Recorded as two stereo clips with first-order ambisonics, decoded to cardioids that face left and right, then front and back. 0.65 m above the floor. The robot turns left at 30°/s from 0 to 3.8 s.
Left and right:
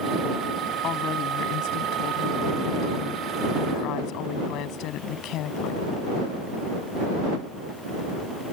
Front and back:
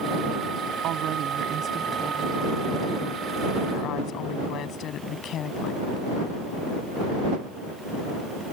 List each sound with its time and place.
0.8 s a woman speaking: 140° left; by 5.9 s 50° left